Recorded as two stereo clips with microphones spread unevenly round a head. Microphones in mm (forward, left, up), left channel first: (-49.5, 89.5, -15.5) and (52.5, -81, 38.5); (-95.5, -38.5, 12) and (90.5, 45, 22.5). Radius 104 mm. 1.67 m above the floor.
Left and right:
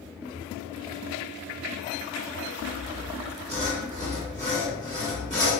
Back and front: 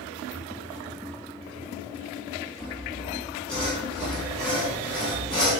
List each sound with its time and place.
2.6 s sawing: 70° right, 1.5 m